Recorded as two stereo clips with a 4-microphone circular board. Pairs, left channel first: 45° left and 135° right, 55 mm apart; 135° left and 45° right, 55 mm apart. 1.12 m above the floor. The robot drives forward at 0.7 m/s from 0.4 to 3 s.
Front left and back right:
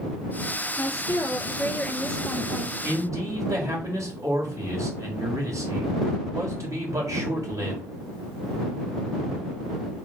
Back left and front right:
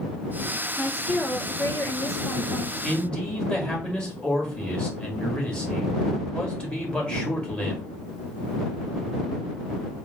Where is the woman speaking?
55° left, 0.8 m; by 2.7 s 145° left, 1.1 m.